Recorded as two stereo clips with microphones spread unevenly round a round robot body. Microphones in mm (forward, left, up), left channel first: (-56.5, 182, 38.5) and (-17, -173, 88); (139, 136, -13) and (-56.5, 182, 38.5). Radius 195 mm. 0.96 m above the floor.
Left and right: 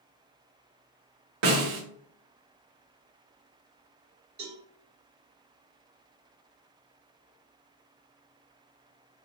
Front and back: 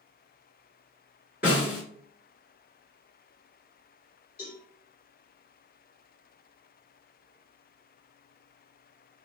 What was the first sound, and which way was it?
A snare drum, 75° right.